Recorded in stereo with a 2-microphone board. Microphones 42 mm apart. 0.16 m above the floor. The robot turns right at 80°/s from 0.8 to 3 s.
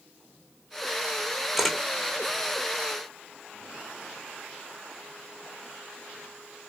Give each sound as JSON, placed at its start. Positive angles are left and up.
{"t": 1.6, "sound": "a camera shutter", "side_deg": -10, "distance_m": 0.8}